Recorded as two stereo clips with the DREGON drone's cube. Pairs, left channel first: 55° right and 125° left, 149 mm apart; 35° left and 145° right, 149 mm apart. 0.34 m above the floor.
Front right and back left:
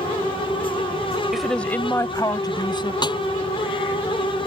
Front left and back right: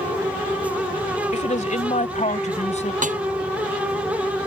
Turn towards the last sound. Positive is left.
turn(degrees=-115)